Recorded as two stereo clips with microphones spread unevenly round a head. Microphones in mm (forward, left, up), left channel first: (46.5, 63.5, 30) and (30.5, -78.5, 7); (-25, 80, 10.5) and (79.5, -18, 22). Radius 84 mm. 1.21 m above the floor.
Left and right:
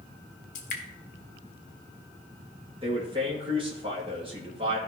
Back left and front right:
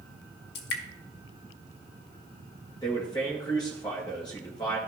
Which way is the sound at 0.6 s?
130° left.